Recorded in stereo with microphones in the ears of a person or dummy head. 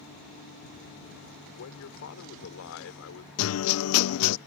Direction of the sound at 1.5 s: 60° left (ahead or behind).